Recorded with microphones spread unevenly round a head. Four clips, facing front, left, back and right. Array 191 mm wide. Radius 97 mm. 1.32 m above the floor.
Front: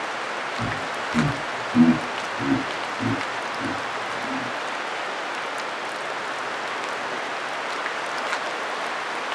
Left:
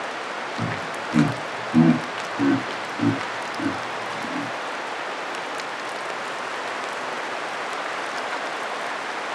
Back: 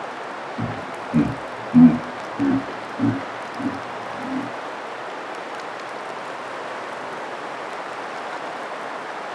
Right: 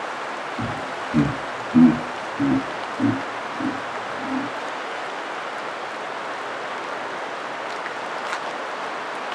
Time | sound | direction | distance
0.6 | laughter | 145° left | 1.5 m